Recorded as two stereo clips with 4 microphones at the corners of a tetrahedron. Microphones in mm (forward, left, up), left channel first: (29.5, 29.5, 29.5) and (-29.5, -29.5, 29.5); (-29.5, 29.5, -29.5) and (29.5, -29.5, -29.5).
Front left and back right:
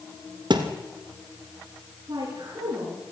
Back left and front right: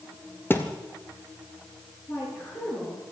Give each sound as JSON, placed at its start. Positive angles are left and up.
{"t": 0.5, "sound": "a thud", "azimuth_deg": -160, "distance_m": 1.5}
{"t": 2.1, "sound": "a woman speaking", "azimuth_deg": -170, "distance_m": 4.0}